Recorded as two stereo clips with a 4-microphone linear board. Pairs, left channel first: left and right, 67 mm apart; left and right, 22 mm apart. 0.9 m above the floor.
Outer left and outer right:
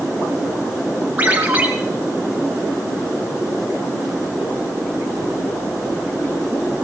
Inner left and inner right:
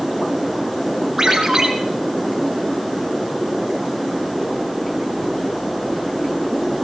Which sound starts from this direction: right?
A ringtone, at 1.2 s.